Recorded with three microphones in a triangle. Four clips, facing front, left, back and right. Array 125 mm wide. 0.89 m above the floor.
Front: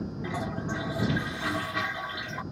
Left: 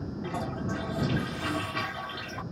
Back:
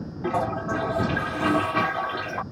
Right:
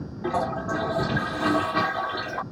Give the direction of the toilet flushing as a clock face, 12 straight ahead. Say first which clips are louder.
Right 9 dB, back 10 dB; 5 o'clock.